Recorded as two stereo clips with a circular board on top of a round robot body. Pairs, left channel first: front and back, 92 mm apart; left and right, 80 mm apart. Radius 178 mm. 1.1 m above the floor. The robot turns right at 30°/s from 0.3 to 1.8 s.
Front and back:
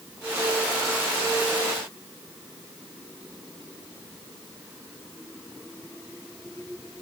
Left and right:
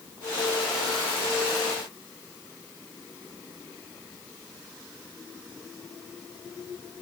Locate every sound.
Only background noise.